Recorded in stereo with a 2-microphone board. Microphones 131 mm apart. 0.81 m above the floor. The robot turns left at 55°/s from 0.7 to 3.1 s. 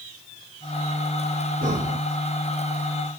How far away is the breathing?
About 2 m.